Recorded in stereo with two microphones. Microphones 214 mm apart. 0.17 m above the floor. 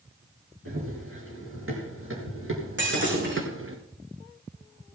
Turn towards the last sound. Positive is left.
turn(degrees=-60)  # may be behind; listen again after turning